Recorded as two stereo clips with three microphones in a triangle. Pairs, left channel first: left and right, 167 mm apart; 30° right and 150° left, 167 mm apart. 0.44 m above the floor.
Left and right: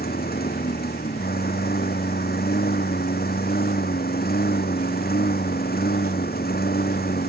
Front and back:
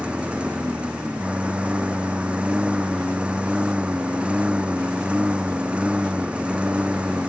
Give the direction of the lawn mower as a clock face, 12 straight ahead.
10 o'clock.